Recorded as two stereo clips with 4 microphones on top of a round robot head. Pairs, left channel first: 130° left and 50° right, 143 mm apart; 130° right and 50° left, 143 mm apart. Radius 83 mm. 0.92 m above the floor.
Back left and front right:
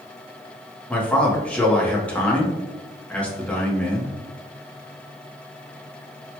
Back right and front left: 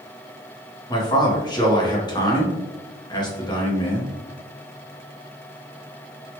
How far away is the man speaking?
About 0.9 m.